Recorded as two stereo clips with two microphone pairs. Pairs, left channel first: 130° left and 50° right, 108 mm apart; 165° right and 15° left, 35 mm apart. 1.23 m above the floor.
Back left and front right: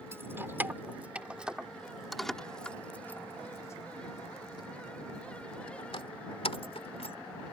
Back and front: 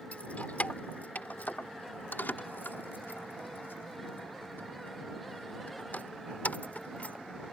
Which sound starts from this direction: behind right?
Keys jangling, at 0.1 s.